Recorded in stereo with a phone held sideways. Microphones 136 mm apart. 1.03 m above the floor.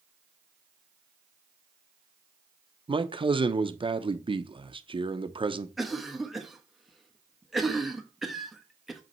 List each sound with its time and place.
2.9 s a man speaking: 35° right (ahead or behind), 0.6 m
5.8 s a cough: centre (ahead or behind), 1.1 m